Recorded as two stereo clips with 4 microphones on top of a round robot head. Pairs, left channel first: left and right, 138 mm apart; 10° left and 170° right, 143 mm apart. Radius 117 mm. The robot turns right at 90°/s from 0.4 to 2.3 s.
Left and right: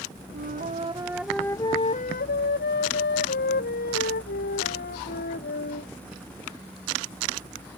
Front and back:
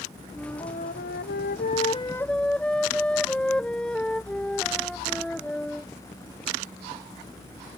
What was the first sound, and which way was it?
A flute, 80° right.